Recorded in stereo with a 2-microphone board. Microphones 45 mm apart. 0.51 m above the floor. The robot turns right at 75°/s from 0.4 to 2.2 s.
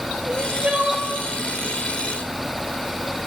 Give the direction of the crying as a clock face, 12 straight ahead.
2 o'clock.